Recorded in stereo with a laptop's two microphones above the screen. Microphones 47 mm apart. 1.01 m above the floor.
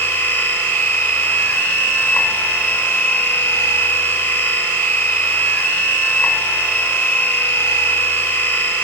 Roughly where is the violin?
I don't hear a violin.